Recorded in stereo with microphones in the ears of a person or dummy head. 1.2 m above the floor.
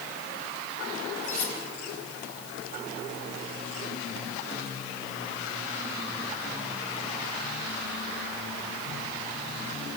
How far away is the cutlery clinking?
About 4 m.